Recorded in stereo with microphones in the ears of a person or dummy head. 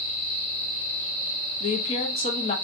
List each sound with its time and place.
1.6 s a woman speaking: 40° left (ahead or behind), 0.7 m